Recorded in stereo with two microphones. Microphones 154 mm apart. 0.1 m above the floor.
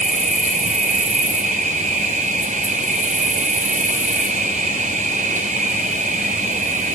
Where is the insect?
55° right (ahead or behind), 0.8 m.